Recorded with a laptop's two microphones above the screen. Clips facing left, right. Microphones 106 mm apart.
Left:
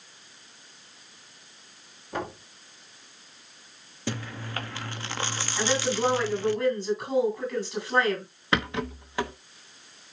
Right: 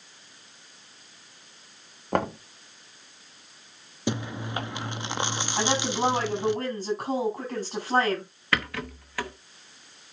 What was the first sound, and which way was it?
Knocking, 65° right (ahead or behind).